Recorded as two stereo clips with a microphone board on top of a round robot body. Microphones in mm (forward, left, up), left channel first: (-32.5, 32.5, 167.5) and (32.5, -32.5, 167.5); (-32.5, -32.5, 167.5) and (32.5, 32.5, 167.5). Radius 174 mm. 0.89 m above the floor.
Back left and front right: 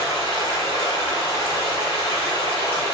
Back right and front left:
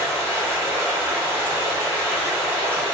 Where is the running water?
115° left, 1.6 m.